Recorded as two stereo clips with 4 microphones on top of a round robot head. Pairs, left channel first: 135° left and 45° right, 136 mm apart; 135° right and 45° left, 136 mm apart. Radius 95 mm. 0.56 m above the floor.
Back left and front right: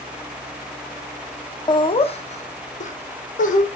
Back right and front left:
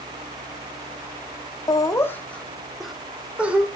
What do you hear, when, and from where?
1.7 s laughter: 175° left, 1.1 m; by 3.7 s 125° left, 2.5 m